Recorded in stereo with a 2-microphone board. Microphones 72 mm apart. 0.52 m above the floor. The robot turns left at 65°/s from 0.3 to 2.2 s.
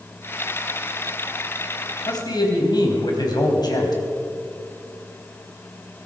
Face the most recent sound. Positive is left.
turn(degrees=65)  # may be behind; listen again after turning